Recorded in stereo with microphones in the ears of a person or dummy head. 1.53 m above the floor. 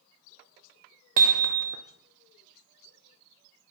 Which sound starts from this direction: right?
Hammering, at 1.2 s.